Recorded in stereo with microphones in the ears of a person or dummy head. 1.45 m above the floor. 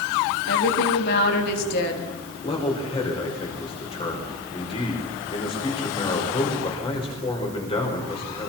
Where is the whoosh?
No whoosh in this recording.